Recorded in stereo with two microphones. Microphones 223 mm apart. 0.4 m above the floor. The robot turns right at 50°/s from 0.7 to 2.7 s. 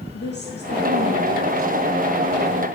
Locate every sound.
0.1 s a woman speaking: 55° left, 4 m; by 2.6 s 150° left, 4 m